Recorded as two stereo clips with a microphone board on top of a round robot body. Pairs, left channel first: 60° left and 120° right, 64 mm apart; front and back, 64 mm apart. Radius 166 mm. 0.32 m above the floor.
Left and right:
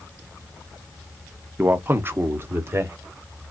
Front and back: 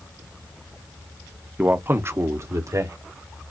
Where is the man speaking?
145° right, 1.1 m; by 3.0 s 160° right, 1.6 m.